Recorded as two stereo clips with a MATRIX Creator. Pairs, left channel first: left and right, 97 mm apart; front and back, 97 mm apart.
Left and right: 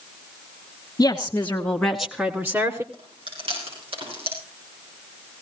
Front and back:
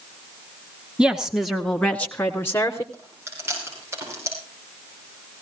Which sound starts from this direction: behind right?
Chewing, at 2.9 s.